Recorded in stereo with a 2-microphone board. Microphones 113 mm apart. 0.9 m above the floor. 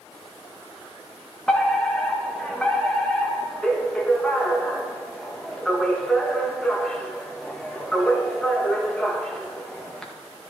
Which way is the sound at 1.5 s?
5° left (ahead or behind).